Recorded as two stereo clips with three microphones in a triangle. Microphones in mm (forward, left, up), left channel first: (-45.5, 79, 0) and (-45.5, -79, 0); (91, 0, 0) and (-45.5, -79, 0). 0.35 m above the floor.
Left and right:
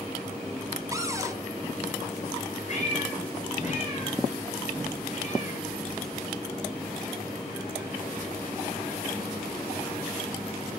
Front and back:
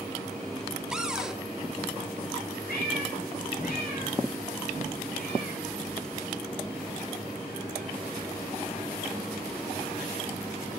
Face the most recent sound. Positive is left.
turn(degrees=50)